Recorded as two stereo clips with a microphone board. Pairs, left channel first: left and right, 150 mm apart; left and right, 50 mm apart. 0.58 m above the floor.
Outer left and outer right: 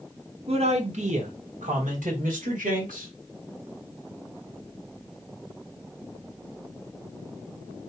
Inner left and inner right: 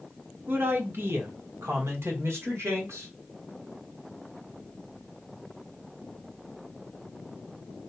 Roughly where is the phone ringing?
No phone ringing in this recording.